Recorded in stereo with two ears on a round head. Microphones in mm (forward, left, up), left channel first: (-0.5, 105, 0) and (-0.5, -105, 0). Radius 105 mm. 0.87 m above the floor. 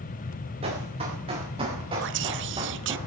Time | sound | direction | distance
0.6 | running footsteps | 25° right (ahead or behind) | 9 m
2.0 | whispering | 55° right (ahead or behind) | 0.6 m